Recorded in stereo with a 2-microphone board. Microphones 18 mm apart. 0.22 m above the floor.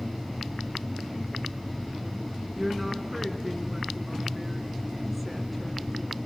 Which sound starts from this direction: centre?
A woman speaking, at 2.5 s.